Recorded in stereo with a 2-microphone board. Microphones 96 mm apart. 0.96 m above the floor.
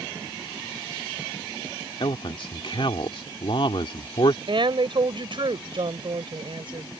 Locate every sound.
2.0 s a man speaking: 60° left (ahead or behind)
4.5 s a woman speaking: 60° right (ahead or behind)